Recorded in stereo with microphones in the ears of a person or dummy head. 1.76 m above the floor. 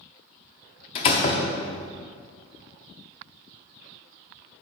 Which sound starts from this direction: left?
A door slam, at 0.9 s.